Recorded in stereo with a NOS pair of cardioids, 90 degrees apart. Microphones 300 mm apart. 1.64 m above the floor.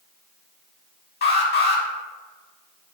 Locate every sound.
1.2 s an alarm: 35° left, 1.4 m